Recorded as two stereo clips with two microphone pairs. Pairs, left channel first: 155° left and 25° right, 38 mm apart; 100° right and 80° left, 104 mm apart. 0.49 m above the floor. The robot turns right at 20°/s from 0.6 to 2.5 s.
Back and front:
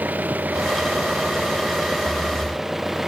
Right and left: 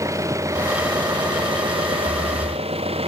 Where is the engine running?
20° left; by 3.1 s 60° left.